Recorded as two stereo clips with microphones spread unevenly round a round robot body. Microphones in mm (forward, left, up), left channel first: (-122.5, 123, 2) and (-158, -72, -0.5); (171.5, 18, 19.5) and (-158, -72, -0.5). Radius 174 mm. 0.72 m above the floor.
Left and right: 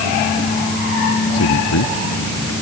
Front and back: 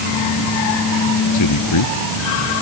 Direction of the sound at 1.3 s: 60° left.